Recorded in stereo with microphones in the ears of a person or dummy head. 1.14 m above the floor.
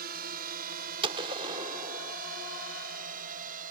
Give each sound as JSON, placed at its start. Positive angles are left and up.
{"t": 0.0, "sound": "a drone", "side_deg": -50}
{"t": 1.0, "sound": "a gunshot", "side_deg": -30}